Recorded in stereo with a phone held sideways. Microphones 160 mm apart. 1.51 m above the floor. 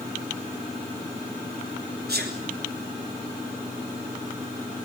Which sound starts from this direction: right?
A sneeze, at 2.1 s.